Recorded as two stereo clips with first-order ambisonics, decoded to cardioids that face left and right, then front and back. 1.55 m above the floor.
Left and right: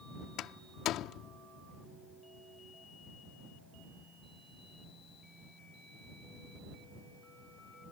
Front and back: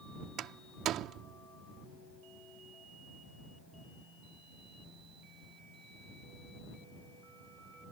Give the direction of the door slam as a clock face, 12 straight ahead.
8 o'clock.